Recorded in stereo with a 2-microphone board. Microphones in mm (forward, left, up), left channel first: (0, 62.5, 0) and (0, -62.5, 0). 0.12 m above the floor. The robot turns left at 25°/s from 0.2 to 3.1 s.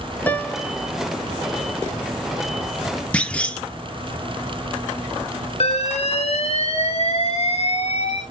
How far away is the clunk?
About 0.7 m.